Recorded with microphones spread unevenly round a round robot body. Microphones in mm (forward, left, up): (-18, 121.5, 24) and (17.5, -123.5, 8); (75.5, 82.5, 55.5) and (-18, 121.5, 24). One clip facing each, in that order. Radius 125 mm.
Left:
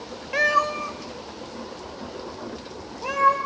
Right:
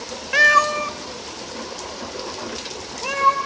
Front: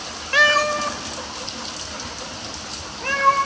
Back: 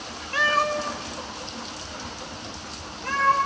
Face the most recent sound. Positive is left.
turn(degrees=-25)